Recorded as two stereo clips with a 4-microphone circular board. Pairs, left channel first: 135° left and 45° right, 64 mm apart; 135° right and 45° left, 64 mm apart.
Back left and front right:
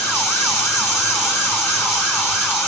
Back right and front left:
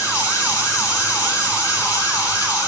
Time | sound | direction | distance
0.0 | running water | 170° right | 4 m